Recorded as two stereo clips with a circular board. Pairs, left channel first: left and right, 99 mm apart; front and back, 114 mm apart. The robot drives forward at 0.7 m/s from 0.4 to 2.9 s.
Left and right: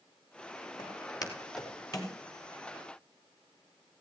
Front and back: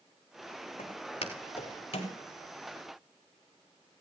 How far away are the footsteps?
About 4.5 m.